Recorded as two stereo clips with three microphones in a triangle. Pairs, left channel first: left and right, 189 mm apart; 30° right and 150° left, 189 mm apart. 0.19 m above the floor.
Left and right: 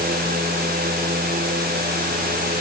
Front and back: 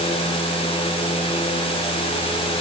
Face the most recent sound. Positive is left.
No sound to turn to.